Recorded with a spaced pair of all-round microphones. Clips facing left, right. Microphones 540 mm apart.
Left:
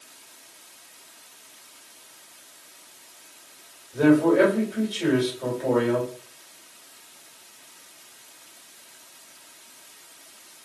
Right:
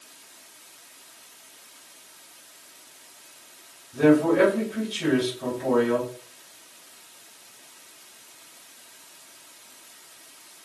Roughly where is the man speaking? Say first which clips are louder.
Left 1 dB; centre.